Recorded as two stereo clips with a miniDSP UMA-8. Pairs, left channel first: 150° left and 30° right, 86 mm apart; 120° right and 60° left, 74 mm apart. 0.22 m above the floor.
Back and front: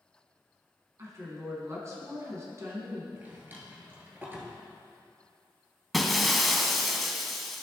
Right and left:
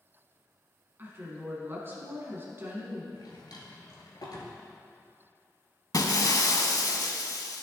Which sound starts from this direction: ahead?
A woman speaking, at 1.0 s.